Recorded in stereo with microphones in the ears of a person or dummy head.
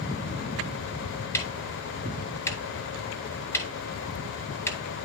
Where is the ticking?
10° left (ahead or behind), 1.8 m.